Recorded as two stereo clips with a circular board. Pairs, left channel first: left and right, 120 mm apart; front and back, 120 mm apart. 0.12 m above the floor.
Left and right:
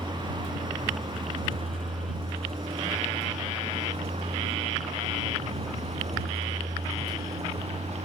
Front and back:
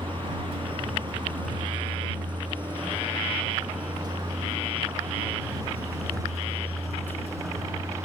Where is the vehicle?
135° right; by 8.1 s 115° right.